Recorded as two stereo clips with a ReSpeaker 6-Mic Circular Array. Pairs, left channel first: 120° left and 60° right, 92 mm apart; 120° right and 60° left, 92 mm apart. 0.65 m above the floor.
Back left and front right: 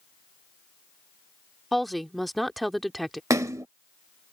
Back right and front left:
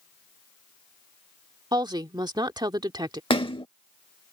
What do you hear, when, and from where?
1.7 s a woman speaking: 30° left
3.3 s a splash: 110° right